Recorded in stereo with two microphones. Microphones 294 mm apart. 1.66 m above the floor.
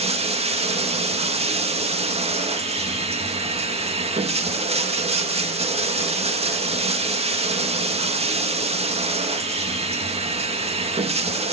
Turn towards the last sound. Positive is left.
turn(degrees=-20)  # may be behind; listen again after turning